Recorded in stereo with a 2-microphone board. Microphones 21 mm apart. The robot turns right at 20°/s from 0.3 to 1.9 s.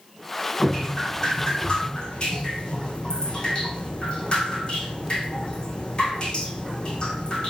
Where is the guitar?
No guitar in this recording.